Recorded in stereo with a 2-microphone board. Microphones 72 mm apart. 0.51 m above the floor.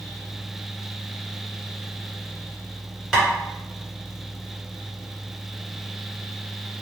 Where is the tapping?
Centre (ahead or behind), 1.5 m.